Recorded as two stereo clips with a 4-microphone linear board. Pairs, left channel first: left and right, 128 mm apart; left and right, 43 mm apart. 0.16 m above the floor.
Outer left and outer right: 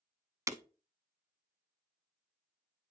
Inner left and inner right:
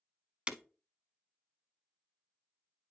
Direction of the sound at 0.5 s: 25° right (ahead or behind).